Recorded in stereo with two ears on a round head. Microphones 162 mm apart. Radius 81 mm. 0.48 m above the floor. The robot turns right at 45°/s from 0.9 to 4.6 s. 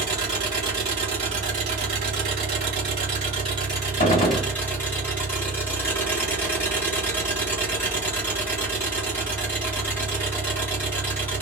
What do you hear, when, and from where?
0.0 s an engine running: 150° right, 1.9 m; by 11.4 s 15° left, 1.9 m
4.0 s a gunshot: 45° left (ahead or behind), 0.7 m; by 4.5 s 25° left (ahead or behind), 0.7 m